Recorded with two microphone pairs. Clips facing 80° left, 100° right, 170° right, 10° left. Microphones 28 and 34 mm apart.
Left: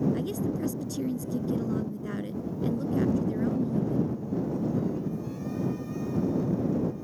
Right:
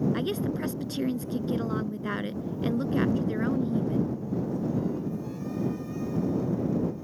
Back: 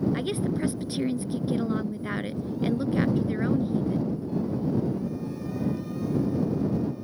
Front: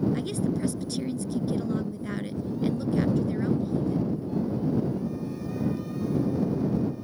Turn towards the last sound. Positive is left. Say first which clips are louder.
# right 1 dB, back 1 dB
turn(degrees=-120)